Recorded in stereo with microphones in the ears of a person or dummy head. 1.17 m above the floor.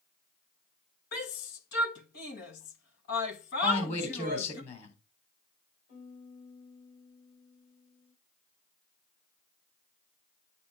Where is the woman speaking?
35° left (ahead or behind), 3.5 m.